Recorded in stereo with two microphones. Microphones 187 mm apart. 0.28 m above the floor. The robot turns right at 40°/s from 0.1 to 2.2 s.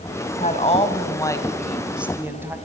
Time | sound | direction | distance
0.4 | a woman speaking | 125° left | 2 m